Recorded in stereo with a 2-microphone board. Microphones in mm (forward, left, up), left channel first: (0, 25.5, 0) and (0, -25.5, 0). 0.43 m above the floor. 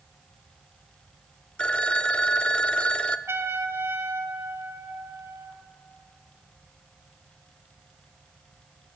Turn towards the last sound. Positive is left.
turn(degrees=-65)  # may be behind; listen again after turning